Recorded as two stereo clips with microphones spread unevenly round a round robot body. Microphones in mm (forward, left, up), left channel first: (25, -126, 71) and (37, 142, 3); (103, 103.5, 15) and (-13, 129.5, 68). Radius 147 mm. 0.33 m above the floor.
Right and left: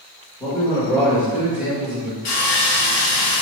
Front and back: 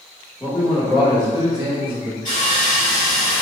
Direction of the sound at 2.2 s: 75° right.